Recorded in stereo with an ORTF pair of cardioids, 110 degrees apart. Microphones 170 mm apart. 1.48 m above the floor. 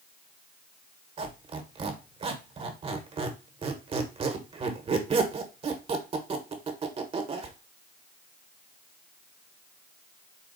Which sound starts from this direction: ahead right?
A squeak, at 1.2 s.